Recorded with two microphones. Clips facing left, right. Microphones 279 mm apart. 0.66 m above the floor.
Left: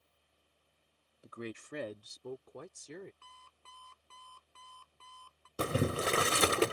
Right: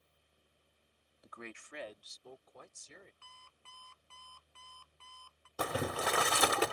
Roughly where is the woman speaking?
Left.